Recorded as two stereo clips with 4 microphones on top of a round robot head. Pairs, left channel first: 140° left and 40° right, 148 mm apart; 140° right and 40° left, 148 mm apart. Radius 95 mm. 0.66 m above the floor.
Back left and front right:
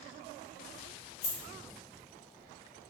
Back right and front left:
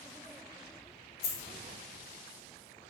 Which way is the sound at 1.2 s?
165° right.